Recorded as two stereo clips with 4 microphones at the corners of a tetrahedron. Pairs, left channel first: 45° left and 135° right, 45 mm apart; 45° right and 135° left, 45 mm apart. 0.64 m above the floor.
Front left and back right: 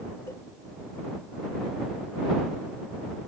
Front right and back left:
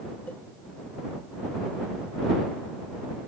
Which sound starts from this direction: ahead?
A cowbell, at 0.3 s.